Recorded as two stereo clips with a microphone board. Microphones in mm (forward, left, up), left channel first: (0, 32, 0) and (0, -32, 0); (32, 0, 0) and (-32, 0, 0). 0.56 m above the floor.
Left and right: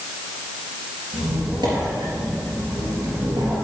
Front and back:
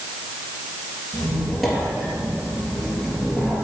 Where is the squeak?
90° right, 3.5 m.